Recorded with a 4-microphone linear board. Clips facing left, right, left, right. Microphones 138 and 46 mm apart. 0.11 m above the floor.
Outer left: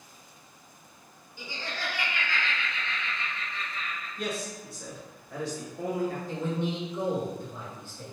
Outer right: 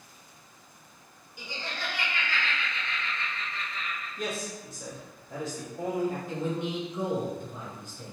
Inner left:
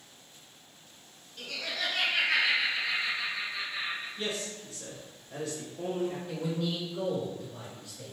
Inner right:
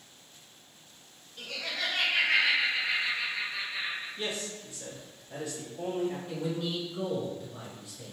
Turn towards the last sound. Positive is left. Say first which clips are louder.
# even, even
turn(degrees=-15)  # may be behind; listen again after turning